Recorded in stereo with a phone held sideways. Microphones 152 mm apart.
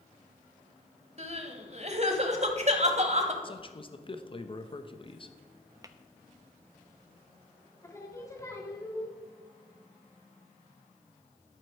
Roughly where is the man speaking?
Left.